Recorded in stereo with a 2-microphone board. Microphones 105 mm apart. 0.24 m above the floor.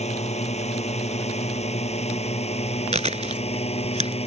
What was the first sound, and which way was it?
A drone, 75° left (ahead or behind).